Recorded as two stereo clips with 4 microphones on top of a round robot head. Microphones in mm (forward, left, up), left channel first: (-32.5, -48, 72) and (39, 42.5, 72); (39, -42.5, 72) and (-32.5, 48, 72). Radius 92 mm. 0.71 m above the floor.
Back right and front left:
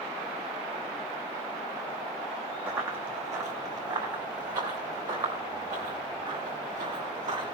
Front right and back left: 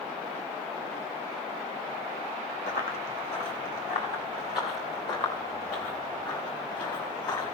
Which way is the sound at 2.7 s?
25° right.